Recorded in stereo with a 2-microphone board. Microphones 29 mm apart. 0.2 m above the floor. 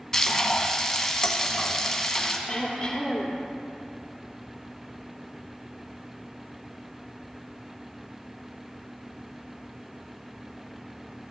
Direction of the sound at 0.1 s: 15° left (ahead or behind).